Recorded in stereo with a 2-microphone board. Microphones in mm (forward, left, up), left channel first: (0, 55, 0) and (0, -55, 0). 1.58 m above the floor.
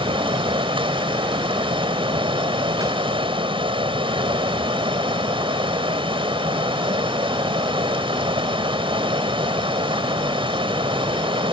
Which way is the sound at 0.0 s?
50° right (ahead or behind).